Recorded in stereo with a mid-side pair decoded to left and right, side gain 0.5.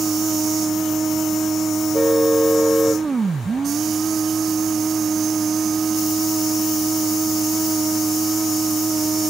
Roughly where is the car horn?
Ahead.